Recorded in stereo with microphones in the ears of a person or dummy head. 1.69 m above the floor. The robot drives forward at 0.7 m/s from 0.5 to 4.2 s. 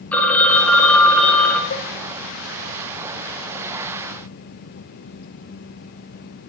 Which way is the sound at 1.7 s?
65° left (ahead or behind).